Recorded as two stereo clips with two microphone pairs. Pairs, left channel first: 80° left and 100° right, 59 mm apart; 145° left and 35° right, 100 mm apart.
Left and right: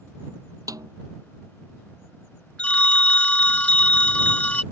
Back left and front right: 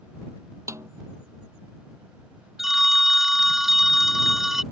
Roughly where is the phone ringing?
Ahead left.